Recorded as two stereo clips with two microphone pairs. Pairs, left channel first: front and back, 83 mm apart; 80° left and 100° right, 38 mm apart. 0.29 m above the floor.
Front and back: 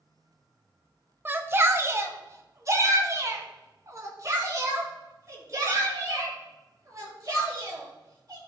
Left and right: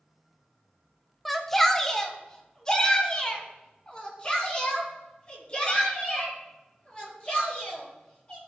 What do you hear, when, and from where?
1.2 s a shout: 155° left, 1.0 m; by 8.4 s 135° left, 5 m